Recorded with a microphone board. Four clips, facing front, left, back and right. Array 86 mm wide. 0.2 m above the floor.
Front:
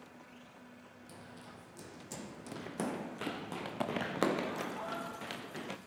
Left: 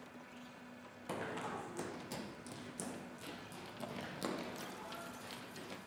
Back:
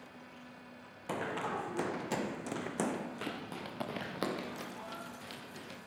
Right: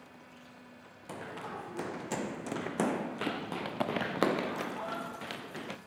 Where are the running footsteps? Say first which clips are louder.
Right 1 dB, back 18 dB; 175° left, 0.9 m; by 5.8 s 65° right, 2.5 m.